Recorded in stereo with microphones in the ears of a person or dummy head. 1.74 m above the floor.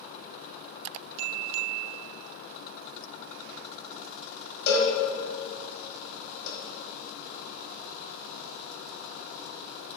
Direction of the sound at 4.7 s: 65° left (ahead or behind).